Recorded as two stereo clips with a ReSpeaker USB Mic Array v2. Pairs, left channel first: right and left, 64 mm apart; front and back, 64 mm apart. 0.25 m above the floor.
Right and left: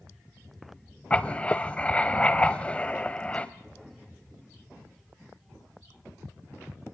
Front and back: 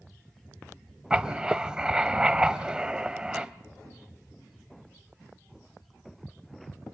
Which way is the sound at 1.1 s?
120° right.